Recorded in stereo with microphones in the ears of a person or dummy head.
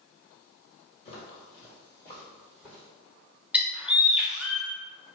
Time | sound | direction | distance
1.1 | footsteps | 35° left (ahead or behind) | 1.9 m
3.5 | a bird | 5° right (ahead or behind) | 0.5 m